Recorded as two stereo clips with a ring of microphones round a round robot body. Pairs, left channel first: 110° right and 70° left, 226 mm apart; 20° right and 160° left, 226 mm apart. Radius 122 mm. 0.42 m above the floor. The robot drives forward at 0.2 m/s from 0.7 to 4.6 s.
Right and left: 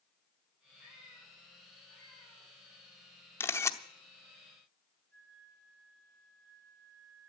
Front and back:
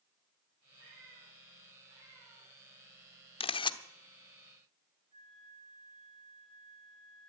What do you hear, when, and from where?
0.8 s a cat meowing: 125° left, 6.5 m
3.4 s a camera shutter: 45° right, 0.8 m; by 3.8 s 55° right, 0.8 m
5.1 s a flute: 155° left, 9 m